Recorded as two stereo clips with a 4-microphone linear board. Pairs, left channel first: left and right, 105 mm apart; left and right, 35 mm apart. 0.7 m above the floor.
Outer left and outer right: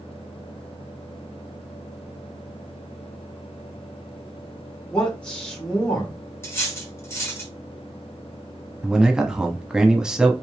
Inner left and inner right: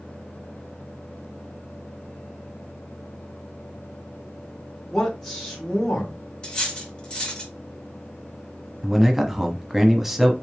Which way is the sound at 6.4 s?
25° left (ahead or behind).